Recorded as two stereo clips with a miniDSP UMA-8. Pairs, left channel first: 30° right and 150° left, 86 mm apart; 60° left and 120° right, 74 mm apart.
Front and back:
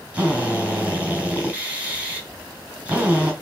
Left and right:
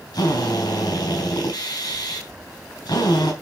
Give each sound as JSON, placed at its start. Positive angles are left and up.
{"t": 0.1, "sound": "a drill", "azimuth_deg": 75, "distance_m": 3.5}